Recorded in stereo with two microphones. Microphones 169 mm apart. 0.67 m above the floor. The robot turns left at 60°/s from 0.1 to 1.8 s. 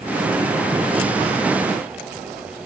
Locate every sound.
Only background noise.